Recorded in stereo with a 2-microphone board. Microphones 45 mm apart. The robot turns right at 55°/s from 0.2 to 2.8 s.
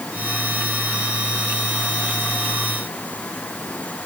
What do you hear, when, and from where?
Only background noise.